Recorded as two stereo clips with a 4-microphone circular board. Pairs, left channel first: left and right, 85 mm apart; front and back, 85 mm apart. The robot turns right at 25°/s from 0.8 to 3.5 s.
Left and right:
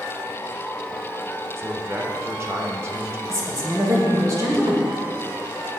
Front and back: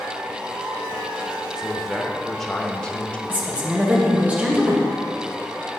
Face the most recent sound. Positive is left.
turn(degrees=-115)